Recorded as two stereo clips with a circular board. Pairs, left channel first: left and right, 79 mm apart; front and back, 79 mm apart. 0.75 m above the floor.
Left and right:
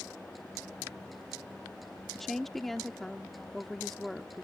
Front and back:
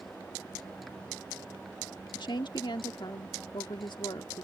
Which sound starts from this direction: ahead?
A woman speaking, at 2.1 s.